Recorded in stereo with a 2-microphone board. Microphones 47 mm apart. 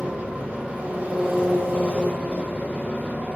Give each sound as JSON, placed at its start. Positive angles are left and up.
{"t": 0.0, "sound": "an engine running", "side_deg": -30, "distance_m": 2.5}